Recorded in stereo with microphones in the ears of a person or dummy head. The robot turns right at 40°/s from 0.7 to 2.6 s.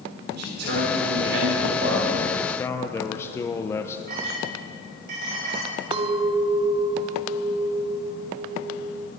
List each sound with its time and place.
0.3 s a man speaking: 110° right, 4 m; by 2.2 s 50° right, 4 m
2.4 s a man speaking: 10° left (ahead or behind), 0.6 m; by 4.0 s 15° left (ahead or behind), 0.6 m
4.1 s a clink: 65° right (ahead or behind), 5.5 m
5.9 s a clink: 35° right (ahead or behind), 0.6 m